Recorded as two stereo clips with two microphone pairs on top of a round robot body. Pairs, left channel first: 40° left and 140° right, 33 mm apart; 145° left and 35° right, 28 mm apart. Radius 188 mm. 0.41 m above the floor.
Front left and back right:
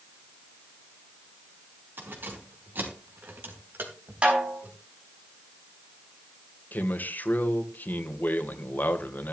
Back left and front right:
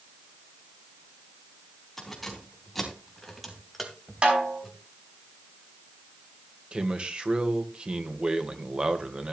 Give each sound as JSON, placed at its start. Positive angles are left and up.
{"t": 2.0, "sound": "keys jangling", "azimuth_deg": -130, "distance_m": 4.0}
{"t": 4.2, "sound": "a snare drum", "azimuth_deg": -85, "distance_m": 5.0}
{"t": 6.7, "sound": "a man speaking", "azimuth_deg": 15, "distance_m": 2.0}